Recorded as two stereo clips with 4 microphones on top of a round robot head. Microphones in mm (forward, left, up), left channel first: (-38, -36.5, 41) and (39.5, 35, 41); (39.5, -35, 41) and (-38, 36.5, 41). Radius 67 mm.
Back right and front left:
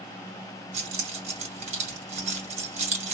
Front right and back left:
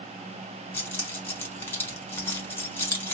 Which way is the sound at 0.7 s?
25° left.